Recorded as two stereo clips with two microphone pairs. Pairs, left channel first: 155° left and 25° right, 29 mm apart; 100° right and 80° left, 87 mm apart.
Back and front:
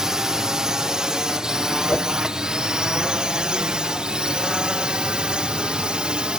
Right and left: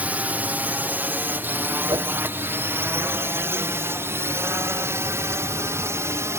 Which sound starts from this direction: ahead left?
A drone, at 0.0 s.